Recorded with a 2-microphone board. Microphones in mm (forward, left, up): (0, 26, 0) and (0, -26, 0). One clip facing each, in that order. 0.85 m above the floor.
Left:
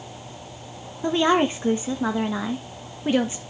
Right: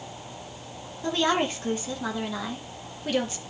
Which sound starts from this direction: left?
A woman speaking, at 1.0 s.